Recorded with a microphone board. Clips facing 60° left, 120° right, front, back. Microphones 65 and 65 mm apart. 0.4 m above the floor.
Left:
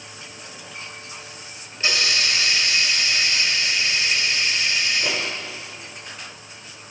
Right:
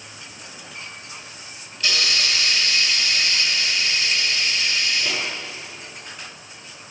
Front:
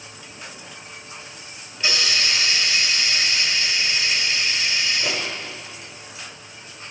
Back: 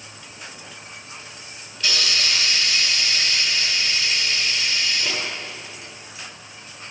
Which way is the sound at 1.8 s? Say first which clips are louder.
Left 1 dB, front 1 dB; 40° left.